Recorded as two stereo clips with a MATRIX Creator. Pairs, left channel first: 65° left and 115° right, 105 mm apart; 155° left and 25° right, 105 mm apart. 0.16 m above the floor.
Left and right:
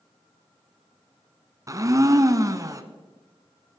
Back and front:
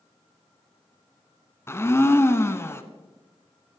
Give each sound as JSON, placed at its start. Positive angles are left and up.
{"t": 1.7, "sound": "a blender", "azimuth_deg": -150, "distance_m": 1.0}